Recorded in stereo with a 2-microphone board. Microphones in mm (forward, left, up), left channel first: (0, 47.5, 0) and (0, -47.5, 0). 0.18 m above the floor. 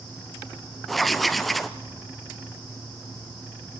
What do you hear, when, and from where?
0.9 s writing: centre (ahead or behind), 1.0 m